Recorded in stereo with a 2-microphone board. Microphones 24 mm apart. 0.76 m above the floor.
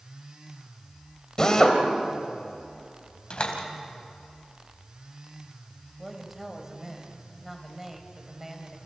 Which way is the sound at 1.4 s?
25° left (ahead or behind).